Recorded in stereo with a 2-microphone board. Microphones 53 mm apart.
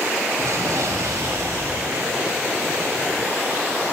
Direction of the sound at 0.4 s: 70° right (ahead or behind).